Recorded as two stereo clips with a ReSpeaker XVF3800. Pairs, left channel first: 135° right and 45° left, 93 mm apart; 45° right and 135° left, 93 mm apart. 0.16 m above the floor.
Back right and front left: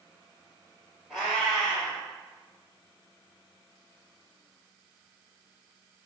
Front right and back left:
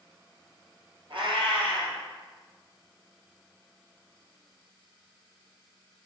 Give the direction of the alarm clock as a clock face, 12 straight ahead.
I don't hear an alarm clock.